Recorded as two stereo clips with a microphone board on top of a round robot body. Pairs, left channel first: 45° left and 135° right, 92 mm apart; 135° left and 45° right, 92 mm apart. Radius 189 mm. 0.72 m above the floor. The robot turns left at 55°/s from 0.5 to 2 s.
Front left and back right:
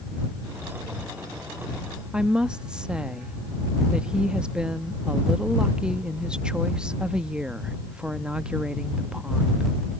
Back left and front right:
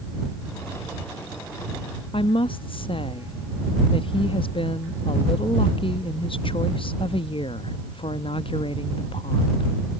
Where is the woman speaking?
145° left.